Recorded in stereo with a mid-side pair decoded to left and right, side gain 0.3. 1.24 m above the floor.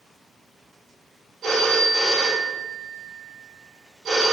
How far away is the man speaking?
No man speaking in this recording.